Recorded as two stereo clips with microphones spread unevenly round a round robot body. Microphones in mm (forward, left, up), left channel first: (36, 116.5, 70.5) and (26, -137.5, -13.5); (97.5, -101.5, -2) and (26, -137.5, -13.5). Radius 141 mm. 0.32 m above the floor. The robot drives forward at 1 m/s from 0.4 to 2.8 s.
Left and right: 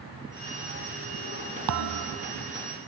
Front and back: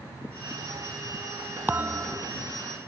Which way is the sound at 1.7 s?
85° right.